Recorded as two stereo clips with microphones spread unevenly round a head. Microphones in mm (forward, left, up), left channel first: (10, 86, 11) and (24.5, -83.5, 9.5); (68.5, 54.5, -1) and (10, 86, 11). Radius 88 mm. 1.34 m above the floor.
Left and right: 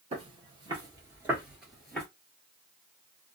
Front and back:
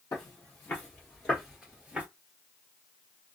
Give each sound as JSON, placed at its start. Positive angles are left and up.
{"t": 0.1, "sound": "footsteps", "azimuth_deg": -55, "distance_m": 1.6}